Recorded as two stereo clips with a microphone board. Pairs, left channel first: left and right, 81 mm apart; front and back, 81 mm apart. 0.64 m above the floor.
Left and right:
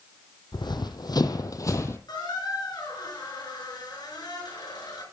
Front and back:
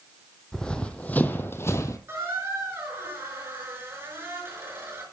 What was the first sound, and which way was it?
Running footsteps, 80° left.